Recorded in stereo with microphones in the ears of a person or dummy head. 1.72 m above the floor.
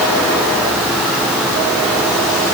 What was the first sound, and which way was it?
Only background noise.